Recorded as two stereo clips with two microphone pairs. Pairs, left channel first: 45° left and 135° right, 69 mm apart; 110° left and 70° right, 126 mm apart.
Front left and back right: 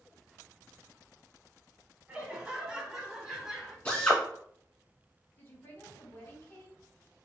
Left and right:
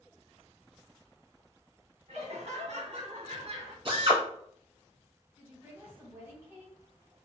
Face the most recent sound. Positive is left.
turn(degrees=0)